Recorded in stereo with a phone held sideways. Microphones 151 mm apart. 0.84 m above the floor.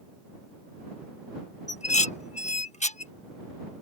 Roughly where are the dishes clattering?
Left.